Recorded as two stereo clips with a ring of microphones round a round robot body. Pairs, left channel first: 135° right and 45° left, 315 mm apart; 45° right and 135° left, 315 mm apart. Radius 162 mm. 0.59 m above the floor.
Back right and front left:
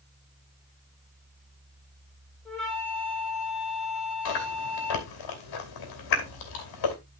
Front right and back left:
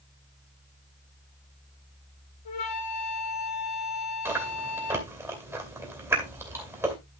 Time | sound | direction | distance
2.5 | a flute | 45° right | 4.5 m
4.2 | chewing | 145° right | 3 m